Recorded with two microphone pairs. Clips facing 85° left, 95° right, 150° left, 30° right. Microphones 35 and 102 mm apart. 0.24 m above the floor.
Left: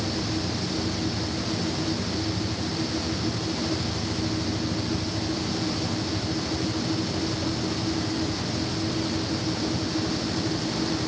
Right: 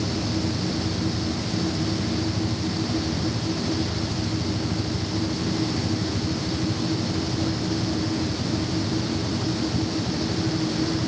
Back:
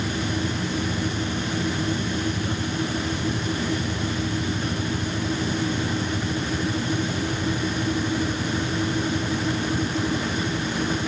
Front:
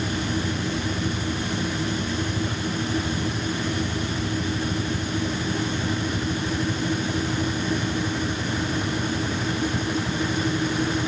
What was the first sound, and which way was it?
Only background noise.